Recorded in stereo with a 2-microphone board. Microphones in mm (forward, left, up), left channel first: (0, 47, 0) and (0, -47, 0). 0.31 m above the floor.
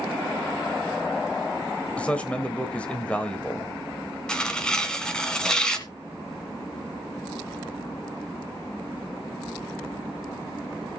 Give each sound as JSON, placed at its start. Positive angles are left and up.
{"t": 2.0, "sound": "a man speaking", "side_deg": 15, "distance_m": 1.3}
{"t": 4.3, "sound": "tearing paper", "side_deg": 10, "distance_m": 1.5}